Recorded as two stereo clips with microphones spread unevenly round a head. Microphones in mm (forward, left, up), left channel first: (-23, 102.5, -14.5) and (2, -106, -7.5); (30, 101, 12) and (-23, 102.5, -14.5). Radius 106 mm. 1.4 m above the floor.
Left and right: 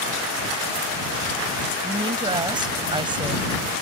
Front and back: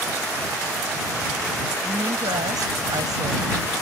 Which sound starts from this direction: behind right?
A woman speaking, at 1.8 s.